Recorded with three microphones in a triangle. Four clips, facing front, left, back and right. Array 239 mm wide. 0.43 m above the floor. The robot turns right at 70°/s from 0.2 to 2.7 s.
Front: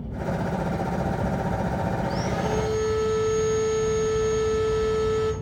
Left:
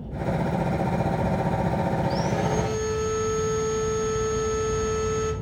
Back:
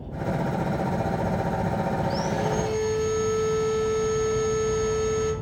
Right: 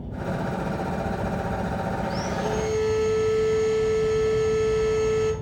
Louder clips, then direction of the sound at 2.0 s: Left 2 dB, back 1 dB; 65° right.